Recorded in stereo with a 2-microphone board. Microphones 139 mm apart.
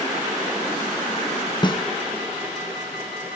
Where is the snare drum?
35° left (ahead or behind), 0.9 m.